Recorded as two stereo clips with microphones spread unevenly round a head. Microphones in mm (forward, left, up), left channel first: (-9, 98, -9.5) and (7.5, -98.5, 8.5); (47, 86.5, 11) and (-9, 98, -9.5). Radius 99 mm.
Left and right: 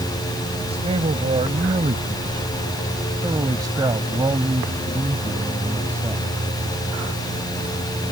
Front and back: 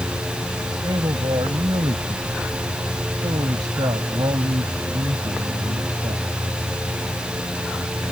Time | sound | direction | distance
0.7 | a man speaking | 150° right | ?